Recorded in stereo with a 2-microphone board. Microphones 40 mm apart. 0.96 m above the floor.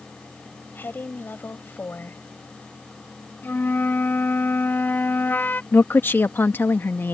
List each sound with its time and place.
0.8 s a woman speaking: 60° left (ahead or behind)
3.4 s a flute: 60° left (ahead or behind)
5.7 s a woman speaking: 65° left (ahead or behind)